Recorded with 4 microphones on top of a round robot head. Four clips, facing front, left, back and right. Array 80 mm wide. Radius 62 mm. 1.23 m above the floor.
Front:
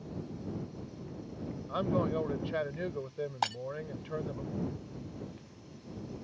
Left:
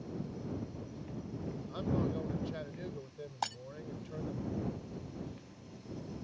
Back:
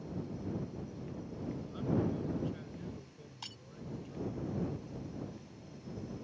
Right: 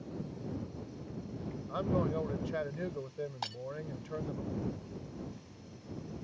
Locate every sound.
1.7 s a man speaking: 25° right
3.4 s breaking glass: 15° left